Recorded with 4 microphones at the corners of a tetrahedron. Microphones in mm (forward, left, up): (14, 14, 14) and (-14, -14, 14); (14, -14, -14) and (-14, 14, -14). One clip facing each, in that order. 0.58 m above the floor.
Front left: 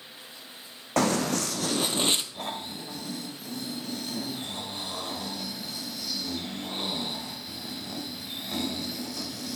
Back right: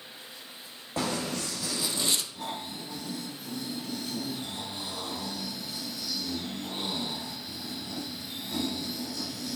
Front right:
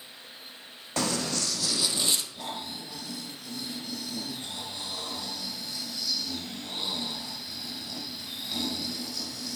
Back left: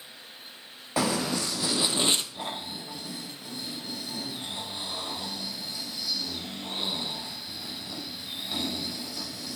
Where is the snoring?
70° left, 2.5 m.